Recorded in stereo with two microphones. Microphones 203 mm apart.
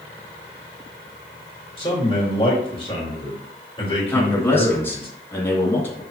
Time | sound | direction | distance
1.8 | a man speaking | 25° left (ahead or behind) | 4 m
4.1 | a man speaking | 10° left (ahead or behind) | 2.5 m